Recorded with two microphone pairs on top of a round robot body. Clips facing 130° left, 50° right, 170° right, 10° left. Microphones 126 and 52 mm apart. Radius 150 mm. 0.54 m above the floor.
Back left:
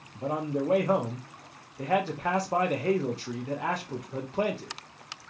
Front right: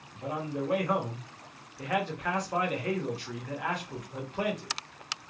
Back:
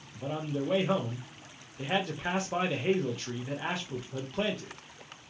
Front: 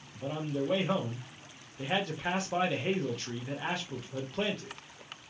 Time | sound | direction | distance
0.1 | a man speaking | 105° left | 0.9 m